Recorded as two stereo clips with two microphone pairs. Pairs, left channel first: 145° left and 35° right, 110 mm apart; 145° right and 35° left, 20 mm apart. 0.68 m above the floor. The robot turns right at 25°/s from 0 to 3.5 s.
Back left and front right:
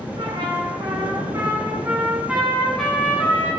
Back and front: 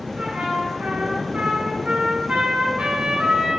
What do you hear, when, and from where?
0.2 s a trumpet: 10° right, 7.5 m; by 3.5 s 75° left, 7.5 m